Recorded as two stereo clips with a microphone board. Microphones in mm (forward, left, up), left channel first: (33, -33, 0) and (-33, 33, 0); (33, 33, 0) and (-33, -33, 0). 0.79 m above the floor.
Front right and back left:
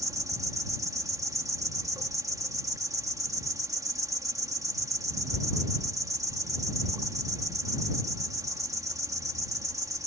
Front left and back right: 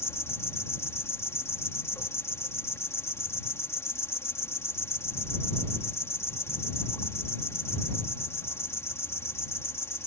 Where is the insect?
95° left.